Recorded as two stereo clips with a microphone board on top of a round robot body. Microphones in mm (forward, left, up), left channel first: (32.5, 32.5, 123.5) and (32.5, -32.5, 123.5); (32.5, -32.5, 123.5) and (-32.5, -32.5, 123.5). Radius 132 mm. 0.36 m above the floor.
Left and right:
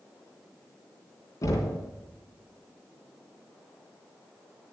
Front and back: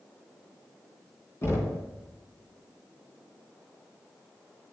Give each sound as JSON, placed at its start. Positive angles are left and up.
{"t": 1.4, "sound": "knocking", "azimuth_deg": 50, "distance_m": 3.0}